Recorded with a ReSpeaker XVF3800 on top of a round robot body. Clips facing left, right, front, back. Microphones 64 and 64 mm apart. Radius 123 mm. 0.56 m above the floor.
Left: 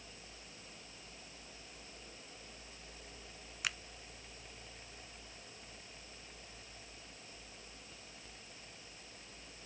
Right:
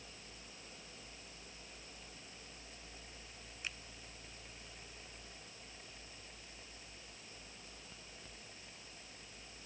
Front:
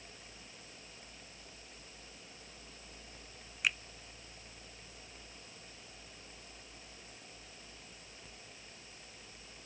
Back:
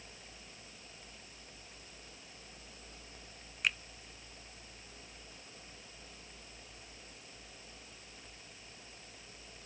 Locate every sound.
3.6 s a finger snap: 90° left